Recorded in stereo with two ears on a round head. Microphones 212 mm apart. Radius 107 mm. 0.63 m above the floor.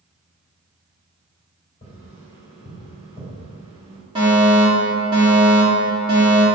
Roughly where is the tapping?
Left.